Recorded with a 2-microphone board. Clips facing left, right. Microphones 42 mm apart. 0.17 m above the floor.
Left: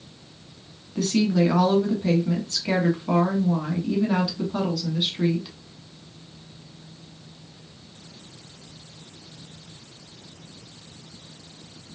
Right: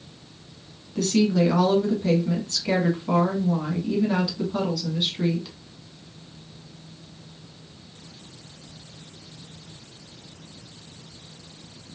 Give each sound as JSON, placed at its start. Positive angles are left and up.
{"t": 0.9, "sound": "a woman speaking", "side_deg": 10, "distance_m": 1.5}